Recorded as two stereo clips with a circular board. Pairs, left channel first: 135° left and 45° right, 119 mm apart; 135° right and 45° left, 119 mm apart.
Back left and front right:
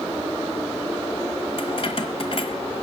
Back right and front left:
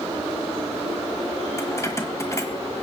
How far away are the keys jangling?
About 1.4 m.